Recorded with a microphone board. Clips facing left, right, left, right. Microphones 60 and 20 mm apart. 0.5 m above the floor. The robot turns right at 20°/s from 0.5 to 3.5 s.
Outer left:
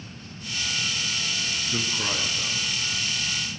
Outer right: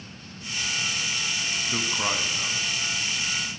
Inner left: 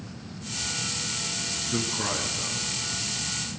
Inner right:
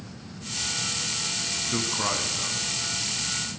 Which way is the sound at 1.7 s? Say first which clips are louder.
Outer right 2 dB, inner right 1 dB; 40° right (ahead or behind).